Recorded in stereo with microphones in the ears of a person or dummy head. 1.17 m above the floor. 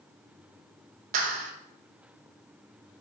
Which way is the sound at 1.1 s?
45° right (ahead or behind).